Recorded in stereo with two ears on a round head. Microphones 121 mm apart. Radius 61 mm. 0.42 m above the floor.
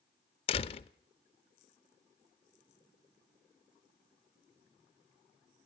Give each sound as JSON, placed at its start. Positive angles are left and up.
{"t": 0.5, "sound": "a door slam", "side_deg": 45, "distance_m": 0.6}